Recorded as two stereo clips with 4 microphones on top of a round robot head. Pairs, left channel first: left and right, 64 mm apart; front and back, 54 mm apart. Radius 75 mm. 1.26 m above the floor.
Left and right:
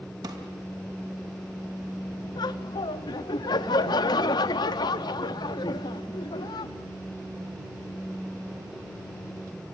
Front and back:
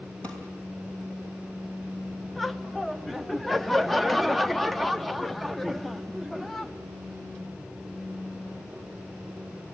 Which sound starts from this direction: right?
A drawer, at 0.2 s.